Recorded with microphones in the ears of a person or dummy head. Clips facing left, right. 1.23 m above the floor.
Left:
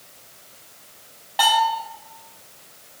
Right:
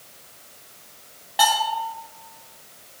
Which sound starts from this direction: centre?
A bell, at 1.4 s.